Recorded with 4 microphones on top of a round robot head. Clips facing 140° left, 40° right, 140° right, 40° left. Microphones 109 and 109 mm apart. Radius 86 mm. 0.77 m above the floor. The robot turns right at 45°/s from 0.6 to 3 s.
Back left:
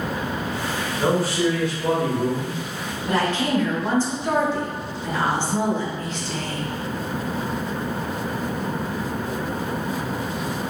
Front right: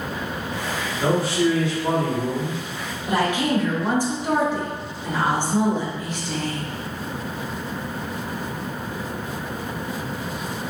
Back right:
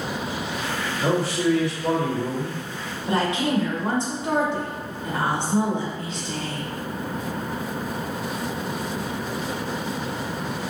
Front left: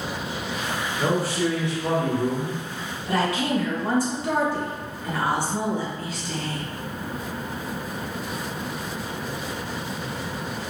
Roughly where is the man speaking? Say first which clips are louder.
Front right 1 dB, back right 1 dB; left.